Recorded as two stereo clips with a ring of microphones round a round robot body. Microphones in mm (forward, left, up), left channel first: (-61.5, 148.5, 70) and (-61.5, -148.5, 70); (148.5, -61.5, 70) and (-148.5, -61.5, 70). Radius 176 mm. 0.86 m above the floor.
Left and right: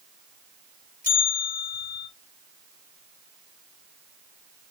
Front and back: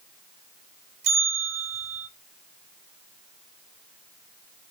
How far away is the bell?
About 4 m.